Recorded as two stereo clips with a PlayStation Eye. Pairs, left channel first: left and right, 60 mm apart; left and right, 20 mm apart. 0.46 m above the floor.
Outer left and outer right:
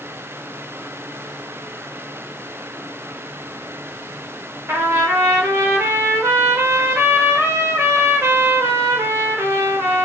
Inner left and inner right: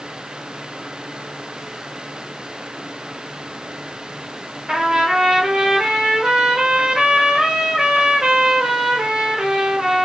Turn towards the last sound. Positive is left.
turn(degrees=-45)  # may be behind; listen again after turning